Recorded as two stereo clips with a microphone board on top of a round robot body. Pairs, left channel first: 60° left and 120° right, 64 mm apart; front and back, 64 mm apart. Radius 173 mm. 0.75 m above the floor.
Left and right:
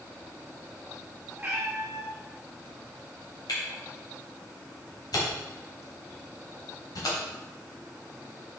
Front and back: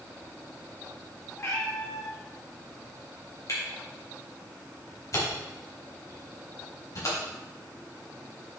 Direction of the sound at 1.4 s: 50° right.